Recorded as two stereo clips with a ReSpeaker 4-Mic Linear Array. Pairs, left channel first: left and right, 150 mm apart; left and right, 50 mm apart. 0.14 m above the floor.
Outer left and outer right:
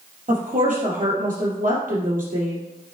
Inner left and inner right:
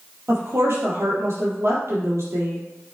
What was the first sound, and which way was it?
A woman speaking, 65° right (ahead or behind).